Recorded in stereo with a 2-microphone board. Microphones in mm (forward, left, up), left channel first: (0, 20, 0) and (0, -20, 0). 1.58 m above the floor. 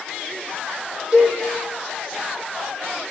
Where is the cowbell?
20° right (ahead or behind), 2 m.